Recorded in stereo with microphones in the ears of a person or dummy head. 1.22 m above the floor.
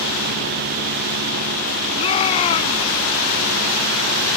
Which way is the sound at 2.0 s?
30° left (ahead or behind).